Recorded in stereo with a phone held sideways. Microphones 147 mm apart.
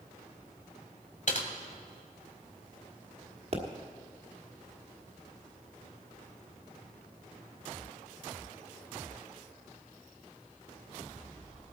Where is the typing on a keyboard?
55° left (ahead or behind), 1.5 m.